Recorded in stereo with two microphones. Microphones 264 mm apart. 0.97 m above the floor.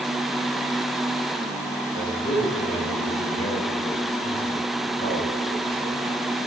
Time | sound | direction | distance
1.9 | a man speaking | 30° left (ahead or behind) | 4.5 m